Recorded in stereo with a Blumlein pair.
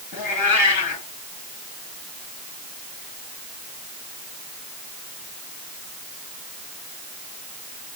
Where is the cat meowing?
40° left, 8.5 m.